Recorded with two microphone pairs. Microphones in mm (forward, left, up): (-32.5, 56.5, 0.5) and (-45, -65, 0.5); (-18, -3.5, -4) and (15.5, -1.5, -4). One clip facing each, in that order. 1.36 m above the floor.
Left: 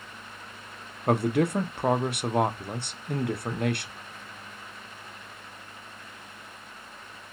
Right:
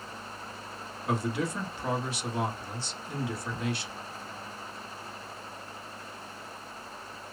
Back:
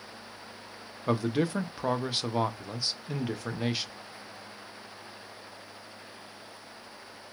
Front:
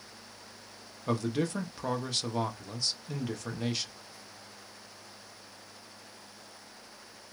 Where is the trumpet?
I don't hear a trumpet.